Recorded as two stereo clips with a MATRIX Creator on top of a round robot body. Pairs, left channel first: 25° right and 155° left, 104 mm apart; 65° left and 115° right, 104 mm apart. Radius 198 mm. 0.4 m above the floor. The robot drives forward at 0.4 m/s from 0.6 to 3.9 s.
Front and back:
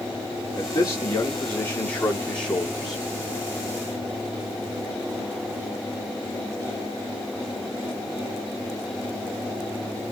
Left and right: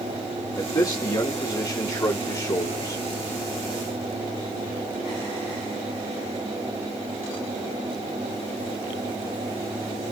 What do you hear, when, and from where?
0.6 s a man speaking: 30° left, 2 m; by 3.0 s 65° left, 1.6 m